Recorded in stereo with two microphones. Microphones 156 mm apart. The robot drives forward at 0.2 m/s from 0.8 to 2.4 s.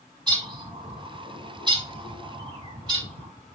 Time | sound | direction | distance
0.3 | a bird | 30° right (ahead or behind) | 0.8 m